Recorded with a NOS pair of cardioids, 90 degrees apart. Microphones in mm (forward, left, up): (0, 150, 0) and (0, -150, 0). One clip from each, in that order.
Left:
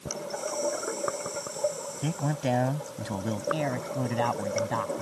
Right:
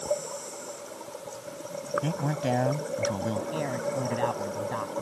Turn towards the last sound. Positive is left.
turn(degrees=25)